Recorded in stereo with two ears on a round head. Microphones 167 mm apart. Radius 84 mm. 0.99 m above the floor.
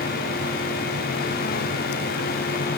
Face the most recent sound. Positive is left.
No sound to turn to.